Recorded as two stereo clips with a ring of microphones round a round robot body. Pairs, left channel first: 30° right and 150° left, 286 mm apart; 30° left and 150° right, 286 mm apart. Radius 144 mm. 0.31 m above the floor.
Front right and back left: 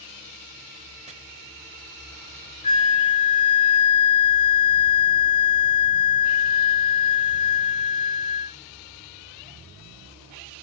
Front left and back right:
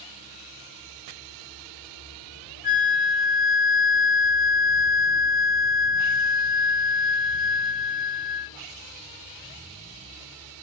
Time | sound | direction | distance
1.1 | chopping | 145° right | 0.7 m
2.6 | a flute | 20° left | 0.7 m